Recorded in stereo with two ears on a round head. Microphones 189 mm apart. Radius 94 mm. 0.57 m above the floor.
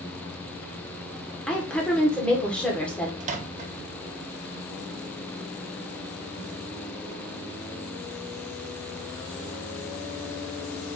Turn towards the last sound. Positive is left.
turn(degrees=-35)  # may be behind; listen again after turning